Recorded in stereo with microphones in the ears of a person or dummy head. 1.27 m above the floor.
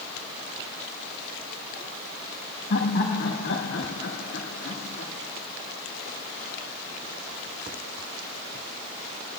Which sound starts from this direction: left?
Laughter, at 2.7 s.